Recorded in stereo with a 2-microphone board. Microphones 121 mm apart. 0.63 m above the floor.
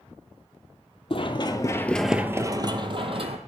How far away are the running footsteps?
About 0.9 m.